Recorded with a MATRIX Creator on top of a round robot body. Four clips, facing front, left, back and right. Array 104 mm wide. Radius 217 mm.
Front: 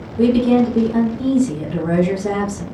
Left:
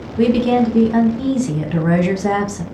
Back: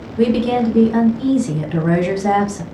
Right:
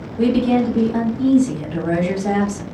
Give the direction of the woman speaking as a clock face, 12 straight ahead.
8 o'clock.